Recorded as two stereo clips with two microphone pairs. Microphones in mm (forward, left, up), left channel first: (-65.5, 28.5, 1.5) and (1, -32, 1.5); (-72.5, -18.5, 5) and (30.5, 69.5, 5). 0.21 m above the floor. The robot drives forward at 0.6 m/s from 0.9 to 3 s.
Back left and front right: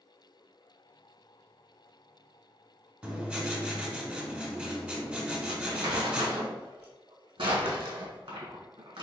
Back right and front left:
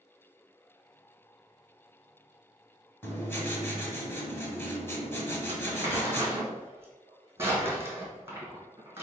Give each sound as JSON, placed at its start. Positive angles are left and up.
{"t": 3.0, "sound": "writing", "azimuth_deg": -100, "distance_m": 1.0}
{"t": 5.5, "sound": "crumpling", "azimuth_deg": -30, "distance_m": 1.9}